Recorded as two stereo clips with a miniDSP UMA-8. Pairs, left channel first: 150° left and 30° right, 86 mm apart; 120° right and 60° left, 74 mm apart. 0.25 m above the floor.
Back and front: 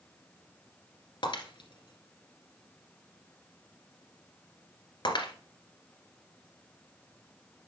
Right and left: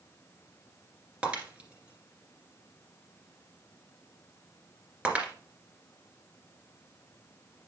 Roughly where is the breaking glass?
Behind left.